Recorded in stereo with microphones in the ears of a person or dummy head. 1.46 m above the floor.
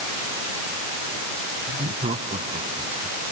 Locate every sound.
1.7 s laughter: 30° right (ahead or behind); by 3.2 s 25° right (ahead or behind)